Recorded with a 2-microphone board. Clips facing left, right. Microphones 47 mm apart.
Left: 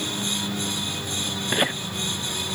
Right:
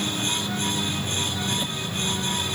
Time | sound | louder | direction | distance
1.5 | laughter | left 6 dB | 60° left (ahead or behind) | ?